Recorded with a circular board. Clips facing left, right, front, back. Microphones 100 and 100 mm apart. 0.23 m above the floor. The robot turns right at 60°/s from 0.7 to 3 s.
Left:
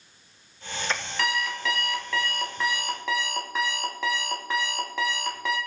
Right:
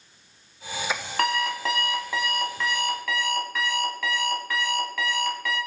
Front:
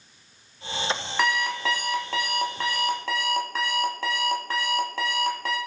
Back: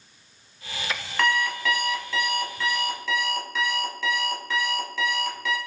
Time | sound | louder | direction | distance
1.2 | an alarm clock | right 5 dB, back 2 dB | 80° right | 0.7 m